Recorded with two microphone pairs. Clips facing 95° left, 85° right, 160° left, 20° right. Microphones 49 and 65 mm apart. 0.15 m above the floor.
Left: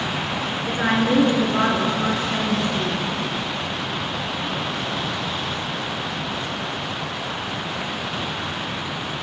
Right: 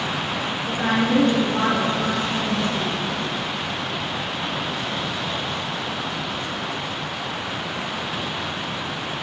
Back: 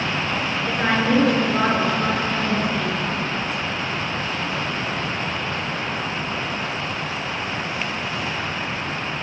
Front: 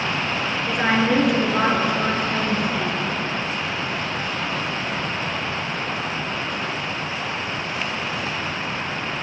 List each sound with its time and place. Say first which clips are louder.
0.7 s a woman speaking: left 1 dB, front 1 dB; 55° left, 1.7 m